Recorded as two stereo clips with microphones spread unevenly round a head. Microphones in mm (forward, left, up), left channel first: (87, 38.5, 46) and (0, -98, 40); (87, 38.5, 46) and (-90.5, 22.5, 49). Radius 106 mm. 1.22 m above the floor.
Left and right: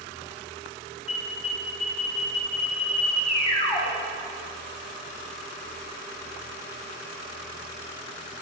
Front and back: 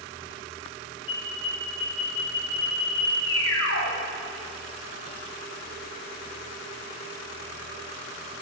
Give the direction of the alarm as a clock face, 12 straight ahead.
12 o'clock.